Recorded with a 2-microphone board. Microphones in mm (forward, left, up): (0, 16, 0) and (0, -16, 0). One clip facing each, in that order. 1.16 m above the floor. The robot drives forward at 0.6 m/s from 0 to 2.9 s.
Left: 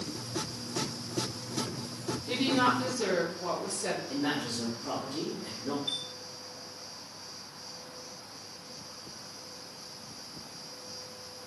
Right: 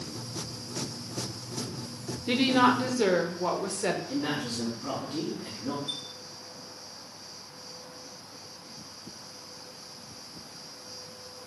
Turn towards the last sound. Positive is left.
turn(degrees=75)  # may be behind; listen again after turning